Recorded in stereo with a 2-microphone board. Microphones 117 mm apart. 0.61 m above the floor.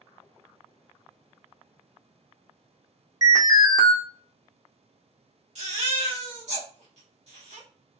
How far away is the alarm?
About 1.1 m.